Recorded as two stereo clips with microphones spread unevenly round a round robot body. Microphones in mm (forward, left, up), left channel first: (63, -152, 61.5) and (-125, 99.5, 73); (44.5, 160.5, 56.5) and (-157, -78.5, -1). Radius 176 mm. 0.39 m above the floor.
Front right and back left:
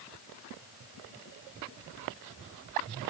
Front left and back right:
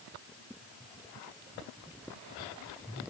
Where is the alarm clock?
I don't hear an alarm clock.